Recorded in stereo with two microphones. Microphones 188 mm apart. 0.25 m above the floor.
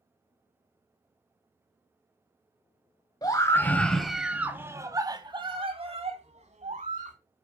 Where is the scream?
20° left (ahead or behind), 1.3 m; by 7.2 s 45° right (ahead or behind), 2.5 m.